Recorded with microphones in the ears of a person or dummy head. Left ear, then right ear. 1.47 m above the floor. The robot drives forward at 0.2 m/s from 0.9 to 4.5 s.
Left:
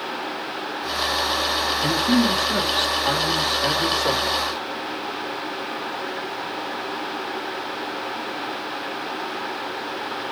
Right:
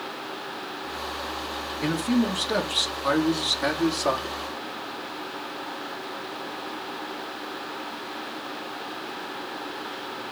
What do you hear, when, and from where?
1.8 s a man speaking: 65° right (ahead or behind), 3 m; by 4.3 s 60° right (ahead or behind), 3 m